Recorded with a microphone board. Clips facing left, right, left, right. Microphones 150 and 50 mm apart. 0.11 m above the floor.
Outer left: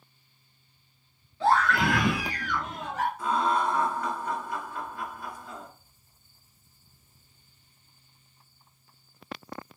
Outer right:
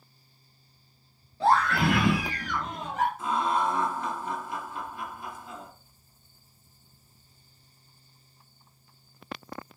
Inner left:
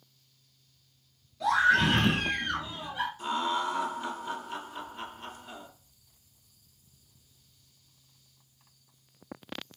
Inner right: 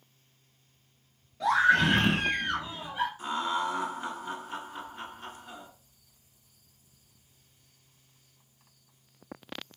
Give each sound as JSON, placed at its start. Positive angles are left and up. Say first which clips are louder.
{"t": 1.4, "sound": "a scream", "louder": "even, inner right 1 dB", "side_deg": -35, "distance_m": 1.3}
{"t": 3.2, "sound": "laughter", "louder": "outer left 4 dB, even", "side_deg": -25, "distance_m": 1.3}